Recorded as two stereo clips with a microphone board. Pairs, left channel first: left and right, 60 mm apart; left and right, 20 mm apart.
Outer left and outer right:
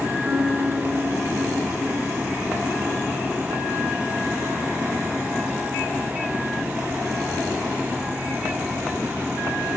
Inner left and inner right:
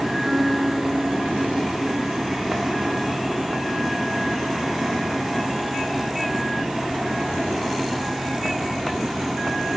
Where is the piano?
50° right (ahead or behind), 8.5 m.